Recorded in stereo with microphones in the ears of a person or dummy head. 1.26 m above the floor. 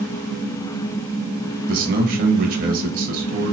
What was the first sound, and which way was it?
A man speaking, 45° right (ahead or behind).